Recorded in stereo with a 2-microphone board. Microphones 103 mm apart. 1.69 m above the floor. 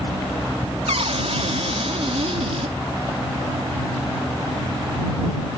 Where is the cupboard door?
85° right.